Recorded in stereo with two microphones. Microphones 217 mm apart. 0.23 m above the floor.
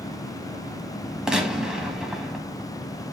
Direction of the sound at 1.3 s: 5° right (ahead or behind).